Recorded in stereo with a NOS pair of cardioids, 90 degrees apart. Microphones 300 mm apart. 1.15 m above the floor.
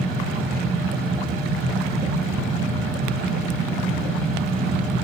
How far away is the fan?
About 1.3 m.